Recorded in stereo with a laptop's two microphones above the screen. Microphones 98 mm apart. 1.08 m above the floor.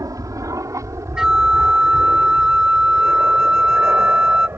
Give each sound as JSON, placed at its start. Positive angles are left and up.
{"t": 0.0, "sound": "an aircraft", "side_deg": -35}
{"t": 1.2, "sound": "a flute", "side_deg": -10}